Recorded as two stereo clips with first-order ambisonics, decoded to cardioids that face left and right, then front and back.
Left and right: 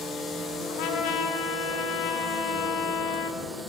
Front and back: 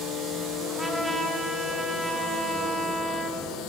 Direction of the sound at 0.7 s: 95° left.